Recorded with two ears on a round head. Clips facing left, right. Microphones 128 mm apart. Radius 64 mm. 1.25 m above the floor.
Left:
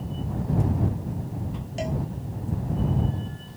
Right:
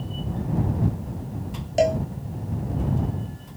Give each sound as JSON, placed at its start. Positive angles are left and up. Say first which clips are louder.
{"t": 1.8, "sound": "a cowbell", "louder": "right 10 dB", "side_deg": -65}